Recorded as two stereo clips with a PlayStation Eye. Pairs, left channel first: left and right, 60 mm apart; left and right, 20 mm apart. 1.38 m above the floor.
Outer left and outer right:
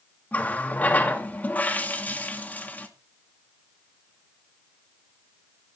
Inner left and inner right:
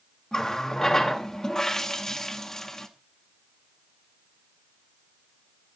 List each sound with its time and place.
0.3 s a running tap: 30° left (ahead or behind), 1.6 m